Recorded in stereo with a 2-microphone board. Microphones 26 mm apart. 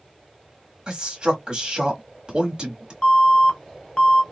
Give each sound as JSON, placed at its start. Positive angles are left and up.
{"t": 0.9, "sound": "a man speaking", "side_deg": -35, "distance_m": 1.2}
{"t": 3.0, "sound": "an alarm", "side_deg": 25, "distance_m": 0.8}